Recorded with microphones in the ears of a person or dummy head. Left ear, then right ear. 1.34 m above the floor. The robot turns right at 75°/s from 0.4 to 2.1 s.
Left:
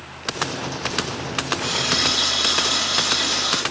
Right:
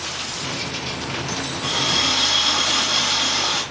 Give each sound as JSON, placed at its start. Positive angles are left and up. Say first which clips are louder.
{"t": 1.6, "sound": "a running tap", "louder": "right 2 dB", "azimuth_deg": 170, "distance_m": 1.3}